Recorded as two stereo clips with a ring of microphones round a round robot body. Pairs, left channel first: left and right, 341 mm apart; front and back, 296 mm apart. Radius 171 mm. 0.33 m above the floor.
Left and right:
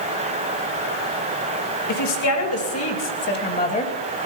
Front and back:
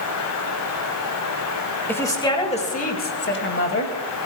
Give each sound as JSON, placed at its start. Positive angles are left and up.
{"t": 1.9, "sound": "a woman speaking", "azimuth_deg": 80, "distance_m": 1.9}